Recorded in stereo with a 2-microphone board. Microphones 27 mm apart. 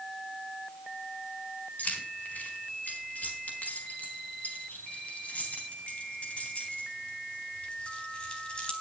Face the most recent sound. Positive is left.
turn(degrees=35)  # may be behind; listen again after turning